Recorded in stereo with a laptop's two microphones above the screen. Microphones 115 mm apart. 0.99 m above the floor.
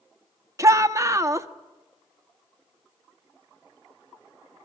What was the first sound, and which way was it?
A shout, 25° right (ahead or behind).